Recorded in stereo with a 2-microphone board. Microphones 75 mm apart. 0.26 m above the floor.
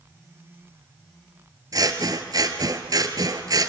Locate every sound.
1.7 s scissors: 60° right (ahead or behind), 1.3 m